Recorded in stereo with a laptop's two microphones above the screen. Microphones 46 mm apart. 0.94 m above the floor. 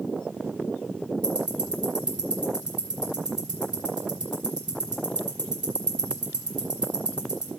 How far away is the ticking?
About 5 m.